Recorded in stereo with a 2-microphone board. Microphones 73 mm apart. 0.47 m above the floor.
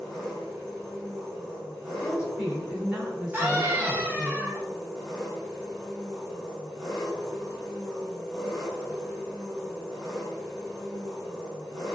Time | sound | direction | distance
0.0 | an engine running | 5° left (ahead or behind) | 1.8 m
2.0 | a woman speaking | 15° right (ahead or behind) | 1.9 m
3.3 | a scream | 30° right (ahead or behind) | 1.4 m